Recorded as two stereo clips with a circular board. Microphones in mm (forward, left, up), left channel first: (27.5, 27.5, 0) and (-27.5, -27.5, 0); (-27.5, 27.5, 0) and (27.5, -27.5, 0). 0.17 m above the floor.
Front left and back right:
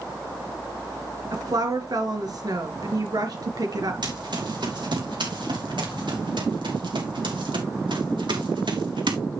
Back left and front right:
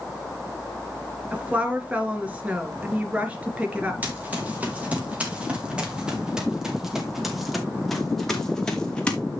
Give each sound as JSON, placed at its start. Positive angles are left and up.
{"t": 1.3, "sound": "a woman speaking", "azimuth_deg": -115, "distance_m": 3.0}
{"t": 4.0, "sound": "running footsteps", "azimuth_deg": -110, "distance_m": 4.5}